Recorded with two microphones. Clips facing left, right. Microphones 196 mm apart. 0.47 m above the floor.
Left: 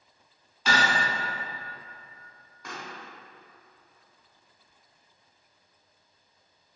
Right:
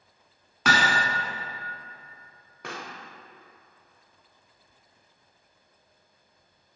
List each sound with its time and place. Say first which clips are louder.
0.7 s hammering: right 1 dB; 75° right (ahead or behind), 1.1 m
2.6 s a pop: right 2 dB; 70° right (ahead or behind), 0.8 m